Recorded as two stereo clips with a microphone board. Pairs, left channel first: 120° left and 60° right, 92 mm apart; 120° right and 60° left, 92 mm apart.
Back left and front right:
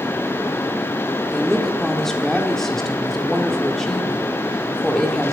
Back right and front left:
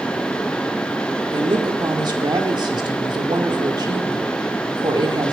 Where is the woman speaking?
35° left, 1.6 m.